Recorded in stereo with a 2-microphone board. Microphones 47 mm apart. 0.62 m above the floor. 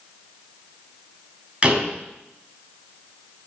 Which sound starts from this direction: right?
A door slam, at 1.6 s.